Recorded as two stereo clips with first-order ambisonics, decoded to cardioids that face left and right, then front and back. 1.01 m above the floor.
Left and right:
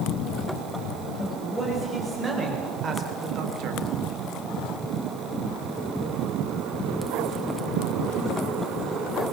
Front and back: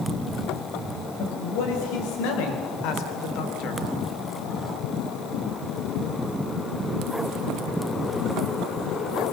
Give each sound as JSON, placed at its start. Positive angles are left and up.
{"t": 1.2, "sound": "a man speaking", "azimuth_deg": -5, "distance_m": 4.5}